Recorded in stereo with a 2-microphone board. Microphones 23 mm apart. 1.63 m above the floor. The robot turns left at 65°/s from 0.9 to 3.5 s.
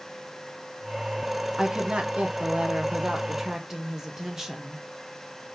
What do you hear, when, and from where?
1.6 s a woman speaking: 30° right, 0.6 m; by 4.8 s 155° right, 0.6 m